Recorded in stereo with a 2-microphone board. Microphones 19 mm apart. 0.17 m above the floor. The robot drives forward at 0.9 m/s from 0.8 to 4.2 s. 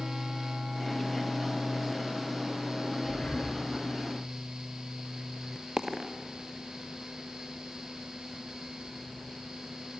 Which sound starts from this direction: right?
A dropped coin, at 5.8 s.